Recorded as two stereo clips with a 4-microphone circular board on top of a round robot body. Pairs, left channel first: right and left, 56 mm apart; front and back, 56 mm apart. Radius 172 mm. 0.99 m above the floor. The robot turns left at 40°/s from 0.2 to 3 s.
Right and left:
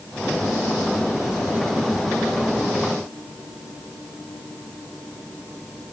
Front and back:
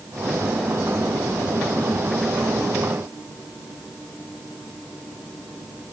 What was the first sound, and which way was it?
Only background noise.